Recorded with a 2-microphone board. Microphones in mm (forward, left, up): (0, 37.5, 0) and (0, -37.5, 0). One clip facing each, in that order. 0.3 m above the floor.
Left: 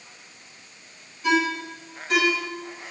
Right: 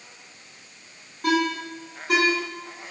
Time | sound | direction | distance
1.2 | a ringtone | 60° right (ahead or behind) | 1.8 m